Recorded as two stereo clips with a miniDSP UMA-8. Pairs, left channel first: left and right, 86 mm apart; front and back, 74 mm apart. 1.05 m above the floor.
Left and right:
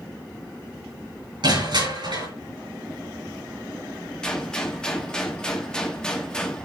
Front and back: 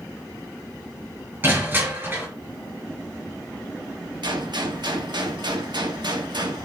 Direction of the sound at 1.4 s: 115° right.